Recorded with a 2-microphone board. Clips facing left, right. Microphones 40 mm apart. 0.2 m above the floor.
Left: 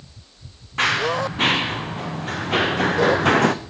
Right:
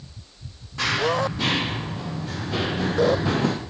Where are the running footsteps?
50° left (ahead or behind), 3 m; by 3.5 s 75° left (ahead or behind), 0.8 m.